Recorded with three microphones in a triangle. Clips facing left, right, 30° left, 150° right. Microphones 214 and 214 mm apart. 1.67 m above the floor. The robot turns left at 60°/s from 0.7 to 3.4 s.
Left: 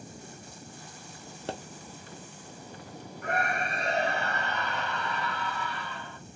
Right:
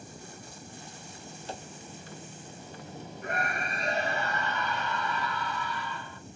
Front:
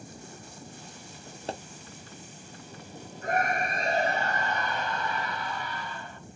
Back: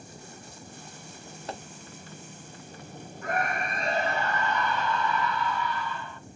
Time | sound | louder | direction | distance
1.5 | a pop | left 5 dB, front 3 dB | 85° left | 0.7 m
3.2 | a scream | left 3 dB, front 2 dB | 85° left | 2.5 m